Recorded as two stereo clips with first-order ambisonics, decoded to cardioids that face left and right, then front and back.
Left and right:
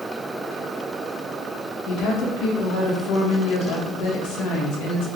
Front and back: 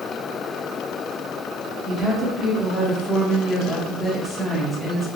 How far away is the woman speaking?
About 1.2 m.